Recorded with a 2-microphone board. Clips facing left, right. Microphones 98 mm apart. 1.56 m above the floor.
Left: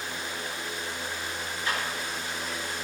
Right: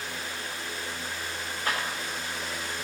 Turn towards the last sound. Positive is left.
turn(degrees=-55)  # may be behind; listen again after turning